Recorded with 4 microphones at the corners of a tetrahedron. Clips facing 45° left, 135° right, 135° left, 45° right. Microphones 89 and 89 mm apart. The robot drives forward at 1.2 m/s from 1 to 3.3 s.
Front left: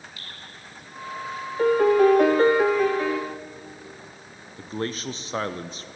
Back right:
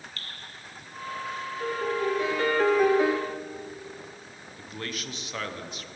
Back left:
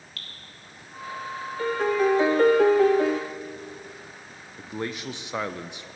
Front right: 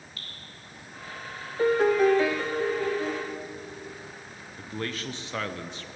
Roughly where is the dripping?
Behind left.